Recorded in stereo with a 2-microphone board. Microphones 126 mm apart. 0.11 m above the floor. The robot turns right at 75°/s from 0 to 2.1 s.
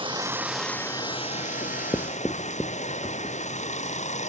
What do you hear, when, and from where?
0.0 s running water: 45° right; by 4.3 s 115° left
1.6 s writing: 50° left (ahead or behind); by 3.4 s 15° left (ahead or behind)